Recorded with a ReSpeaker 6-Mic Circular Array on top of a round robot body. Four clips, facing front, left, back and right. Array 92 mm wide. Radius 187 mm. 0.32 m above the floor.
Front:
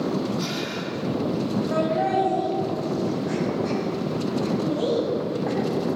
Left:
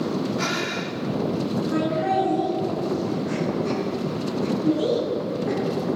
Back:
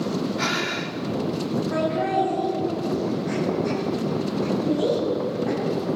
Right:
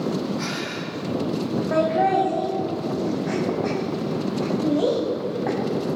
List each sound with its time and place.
0.4 s breathing: 160° left, 1.9 m
1.7 s laughter: 80° right, 3 m